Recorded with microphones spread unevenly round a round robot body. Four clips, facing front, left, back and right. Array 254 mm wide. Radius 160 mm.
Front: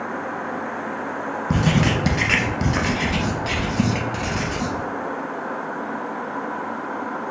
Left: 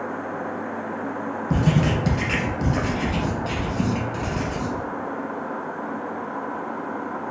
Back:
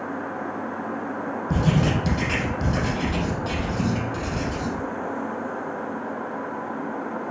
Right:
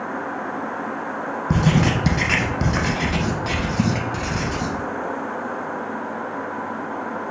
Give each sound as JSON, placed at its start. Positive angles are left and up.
{"t": 1.5, "sound": "writing", "azimuth_deg": -45, "distance_m": 0.9}